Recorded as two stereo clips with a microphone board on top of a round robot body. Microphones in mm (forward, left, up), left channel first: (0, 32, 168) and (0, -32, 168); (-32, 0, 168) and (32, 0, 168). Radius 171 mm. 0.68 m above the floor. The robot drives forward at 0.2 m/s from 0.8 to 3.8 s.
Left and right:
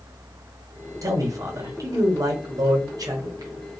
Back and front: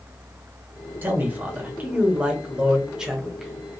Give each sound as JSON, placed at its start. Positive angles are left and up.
{"t": 1.0, "sound": "a man speaking", "azimuth_deg": -60, "distance_m": 1.2}